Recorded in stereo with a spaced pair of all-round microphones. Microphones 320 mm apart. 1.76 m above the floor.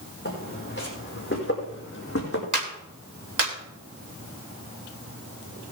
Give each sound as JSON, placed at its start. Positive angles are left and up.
{"t": 0.2, "sound": "footsteps", "side_deg": 35, "distance_m": 5.0}
{"t": 2.5, "sound": "a clap", "side_deg": -70, "distance_m": 3.0}